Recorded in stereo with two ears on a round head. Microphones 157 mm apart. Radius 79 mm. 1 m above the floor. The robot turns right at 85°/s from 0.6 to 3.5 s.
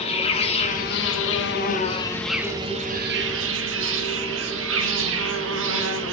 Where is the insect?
35° left, 1.1 m; by 6.1 s 80° right, 1.1 m.